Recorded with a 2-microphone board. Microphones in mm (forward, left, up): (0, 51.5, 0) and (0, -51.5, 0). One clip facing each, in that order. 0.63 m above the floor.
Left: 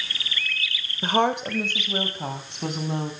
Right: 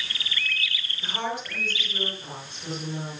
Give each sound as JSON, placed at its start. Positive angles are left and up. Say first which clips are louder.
{"t": 1.0, "sound": "a woman speaking", "louder": "left 9 dB", "side_deg": 60, "distance_m": 2.5}